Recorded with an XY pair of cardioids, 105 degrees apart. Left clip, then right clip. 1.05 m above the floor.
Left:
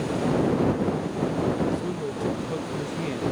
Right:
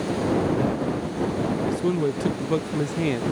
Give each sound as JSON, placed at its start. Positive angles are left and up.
{"t": 1.7, "sound": "a man speaking", "azimuth_deg": -50}